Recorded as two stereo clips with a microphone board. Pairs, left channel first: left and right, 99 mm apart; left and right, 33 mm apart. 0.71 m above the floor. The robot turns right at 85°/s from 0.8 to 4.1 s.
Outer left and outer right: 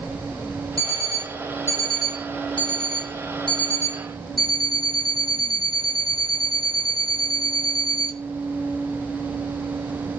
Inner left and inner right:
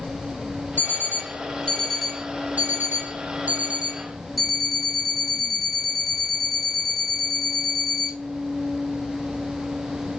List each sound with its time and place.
0.8 s an alarm clock: 80° left, 0.8 m; by 8.2 s 5° left, 0.8 m